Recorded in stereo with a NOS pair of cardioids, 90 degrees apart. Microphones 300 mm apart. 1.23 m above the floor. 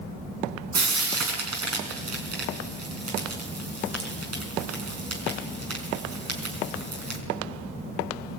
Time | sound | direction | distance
0.7 | frying | 55° right | 5.5 m